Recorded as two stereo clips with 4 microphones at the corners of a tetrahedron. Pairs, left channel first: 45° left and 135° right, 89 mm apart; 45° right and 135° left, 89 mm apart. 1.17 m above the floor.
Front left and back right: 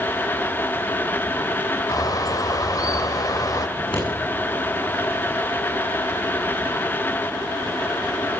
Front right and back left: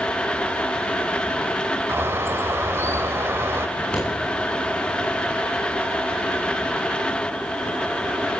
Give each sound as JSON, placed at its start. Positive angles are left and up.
{"t": 1.9, "sound": "a bird", "azimuth_deg": 80, "distance_m": 1.4}
{"t": 3.8, "sound": "scissors", "azimuth_deg": 35, "distance_m": 10.0}